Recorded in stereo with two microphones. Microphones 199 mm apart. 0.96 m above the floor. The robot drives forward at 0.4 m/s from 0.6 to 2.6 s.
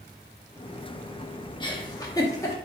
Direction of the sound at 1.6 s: 25° left (ahead or behind).